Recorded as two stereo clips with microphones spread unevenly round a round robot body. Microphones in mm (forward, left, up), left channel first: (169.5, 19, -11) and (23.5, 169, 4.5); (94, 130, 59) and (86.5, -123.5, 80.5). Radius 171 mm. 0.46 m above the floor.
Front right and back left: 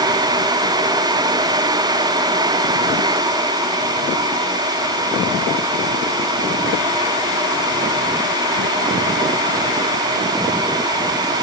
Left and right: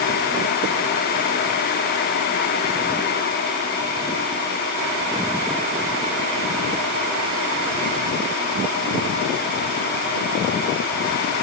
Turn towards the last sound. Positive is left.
No sound to turn to.